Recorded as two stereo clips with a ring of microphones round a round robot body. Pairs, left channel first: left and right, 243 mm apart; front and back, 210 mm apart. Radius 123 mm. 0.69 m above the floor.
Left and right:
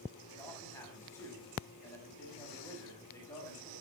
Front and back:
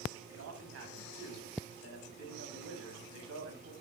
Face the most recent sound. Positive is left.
turn(degrees=170)